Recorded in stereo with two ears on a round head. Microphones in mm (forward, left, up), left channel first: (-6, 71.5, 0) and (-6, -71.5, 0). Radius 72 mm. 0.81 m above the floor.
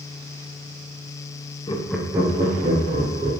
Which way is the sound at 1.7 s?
25° left (ahead or behind).